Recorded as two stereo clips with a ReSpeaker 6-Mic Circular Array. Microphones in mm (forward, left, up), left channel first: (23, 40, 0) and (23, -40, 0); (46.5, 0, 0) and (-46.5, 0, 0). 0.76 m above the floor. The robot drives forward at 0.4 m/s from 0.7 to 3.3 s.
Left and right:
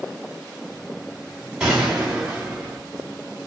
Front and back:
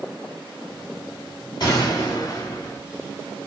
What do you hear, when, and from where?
1.6 s a gunshot: 10° right, 1.4 m; by 2.8 s 15° right, 1.1 m